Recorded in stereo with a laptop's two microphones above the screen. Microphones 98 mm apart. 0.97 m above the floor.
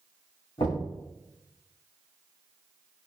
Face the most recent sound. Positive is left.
turn(degrees=85)